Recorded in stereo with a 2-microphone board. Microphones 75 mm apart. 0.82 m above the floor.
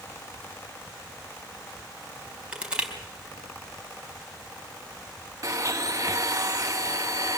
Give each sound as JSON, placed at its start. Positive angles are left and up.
{"t": 2.5, "sound": "crushing", "side_deg": -15, "distance_m": 4.5}
{"t": 5.4, "sound": "a blender", "side_deg": -45, "distance_m": 1.3}